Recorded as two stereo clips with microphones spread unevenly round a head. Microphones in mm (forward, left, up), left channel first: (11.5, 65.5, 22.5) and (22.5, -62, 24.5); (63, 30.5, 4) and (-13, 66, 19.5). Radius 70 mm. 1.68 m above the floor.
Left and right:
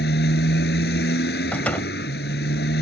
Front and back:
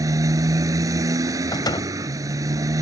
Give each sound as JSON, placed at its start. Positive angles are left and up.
{"t": 0.0, "sound": "a motorcycle", "azimuth_deg": 110}
{"t": 1.5, "sound": "a door slam", "azimuth_deg": 15}